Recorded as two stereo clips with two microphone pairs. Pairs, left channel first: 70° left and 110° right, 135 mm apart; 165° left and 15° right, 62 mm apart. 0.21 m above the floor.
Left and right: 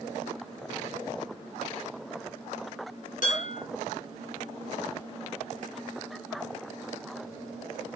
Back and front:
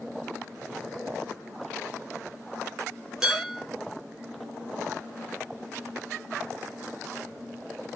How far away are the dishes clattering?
About 3 m.